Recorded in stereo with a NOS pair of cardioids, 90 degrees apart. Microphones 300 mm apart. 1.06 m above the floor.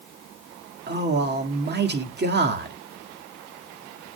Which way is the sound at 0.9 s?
35° right.